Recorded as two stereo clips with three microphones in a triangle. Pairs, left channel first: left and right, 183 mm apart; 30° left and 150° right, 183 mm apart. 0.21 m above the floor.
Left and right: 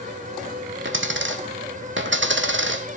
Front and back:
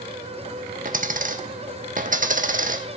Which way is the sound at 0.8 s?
100° right.